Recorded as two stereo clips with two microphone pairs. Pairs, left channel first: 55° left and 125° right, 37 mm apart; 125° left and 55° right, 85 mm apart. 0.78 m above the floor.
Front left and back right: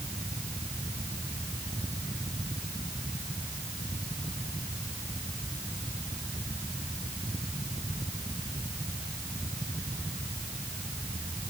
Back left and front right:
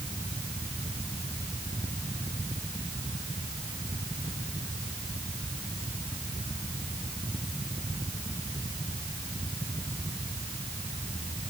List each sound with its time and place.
Only background noise.